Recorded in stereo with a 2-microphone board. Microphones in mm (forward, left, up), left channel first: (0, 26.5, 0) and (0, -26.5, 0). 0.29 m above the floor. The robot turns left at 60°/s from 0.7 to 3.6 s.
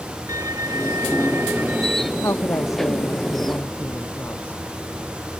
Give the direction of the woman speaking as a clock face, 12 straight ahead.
8 o'clock.